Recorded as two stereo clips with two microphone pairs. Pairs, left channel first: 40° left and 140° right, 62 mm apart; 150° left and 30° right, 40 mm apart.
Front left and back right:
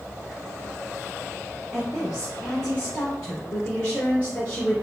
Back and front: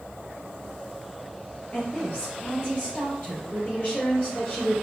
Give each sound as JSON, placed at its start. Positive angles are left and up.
{"t": 1.7, "sound": "a woman speaking", "azimuth_deg": 120, "distance_m": 1.7}